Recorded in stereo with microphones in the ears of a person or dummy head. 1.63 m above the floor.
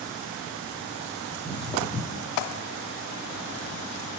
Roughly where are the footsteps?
Centre.